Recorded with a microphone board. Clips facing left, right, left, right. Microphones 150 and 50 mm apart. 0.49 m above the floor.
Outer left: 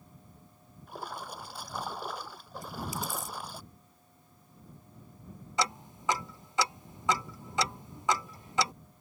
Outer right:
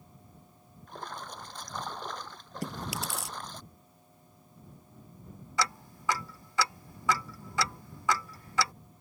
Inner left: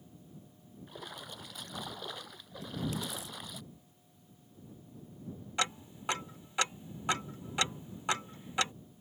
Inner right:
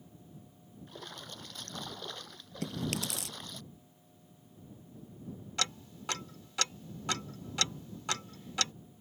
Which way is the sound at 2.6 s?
80° right.